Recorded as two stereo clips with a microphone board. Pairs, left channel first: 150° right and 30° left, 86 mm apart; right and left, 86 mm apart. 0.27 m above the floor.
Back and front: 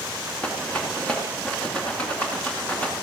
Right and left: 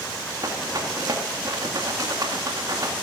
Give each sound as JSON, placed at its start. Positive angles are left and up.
{"t": 0.4, "sound": "a rattle", "azimuth_deg": 135, "distance_m": 2.5}